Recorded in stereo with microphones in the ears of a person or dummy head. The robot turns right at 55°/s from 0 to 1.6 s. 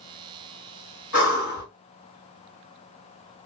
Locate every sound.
1.1 s breathing: 55° left (ahead or behind), 1.7 m; by 1.6 s 50° left (ahead or behind), 1.7 m